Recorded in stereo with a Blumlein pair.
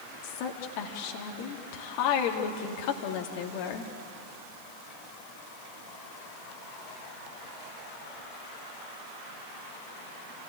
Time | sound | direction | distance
0.2 | a woman speaking | 45° left | 3 m